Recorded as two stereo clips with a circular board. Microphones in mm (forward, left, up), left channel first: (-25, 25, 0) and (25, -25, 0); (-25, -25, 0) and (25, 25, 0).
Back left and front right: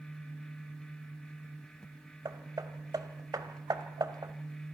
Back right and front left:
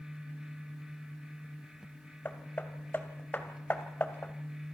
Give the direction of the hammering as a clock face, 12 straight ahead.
2 o'clock.